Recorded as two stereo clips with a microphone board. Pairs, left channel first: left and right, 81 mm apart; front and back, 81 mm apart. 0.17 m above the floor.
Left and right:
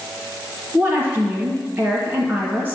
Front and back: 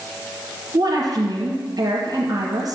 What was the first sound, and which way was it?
A woman speaking, 155° right.